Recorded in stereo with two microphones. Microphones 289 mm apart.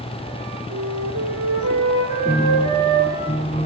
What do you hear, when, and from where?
0.7 s a flute: 85° right, 9 m
2.2 s a piano: 30° left (ahead or behind), 3 m